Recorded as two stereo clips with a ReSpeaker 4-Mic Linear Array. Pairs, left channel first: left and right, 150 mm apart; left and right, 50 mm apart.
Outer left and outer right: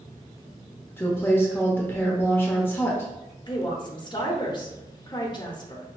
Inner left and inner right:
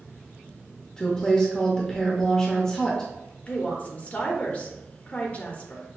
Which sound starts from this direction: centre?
A woman speaking, at 1.0 s.